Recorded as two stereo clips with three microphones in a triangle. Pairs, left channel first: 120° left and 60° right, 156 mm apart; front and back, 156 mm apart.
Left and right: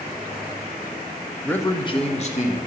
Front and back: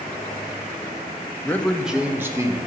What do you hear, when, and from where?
1.4 s a man speaking: 50° left, 0.8 m; by 2.6 s 115° left, 1.3 m